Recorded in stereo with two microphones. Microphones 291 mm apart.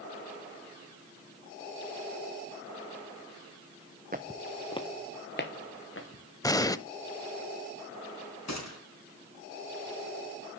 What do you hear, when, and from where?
4.1 s footsteps: 30° right (ahead or behind), 0.8 m; by 6.7 s 50° left (ahead or behind), 3.5 m
6.4 s an explosion: 10° left (ahead or behind), 0.5 m
8.5 s a gunshot: 65° left (ahead or behind), 3.5 m